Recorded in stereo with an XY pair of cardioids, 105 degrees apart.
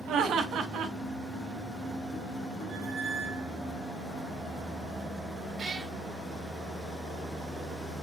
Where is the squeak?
45° right, 1.1 m.